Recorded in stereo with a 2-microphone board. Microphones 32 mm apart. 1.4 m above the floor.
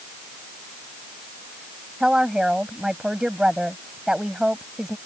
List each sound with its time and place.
2.0 s a woman speaking: 25° right (ahead or behind)